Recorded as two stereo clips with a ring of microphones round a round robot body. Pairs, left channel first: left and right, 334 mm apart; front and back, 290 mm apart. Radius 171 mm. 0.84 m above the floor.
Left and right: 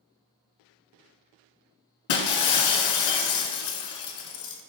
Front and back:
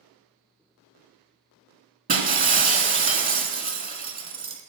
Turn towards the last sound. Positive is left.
turn(degrees=120)